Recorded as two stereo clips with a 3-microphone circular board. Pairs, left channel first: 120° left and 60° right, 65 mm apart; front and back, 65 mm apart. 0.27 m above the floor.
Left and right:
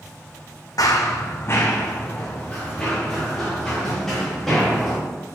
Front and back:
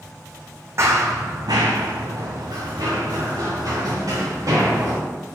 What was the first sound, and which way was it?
Running footsteps, 135° left.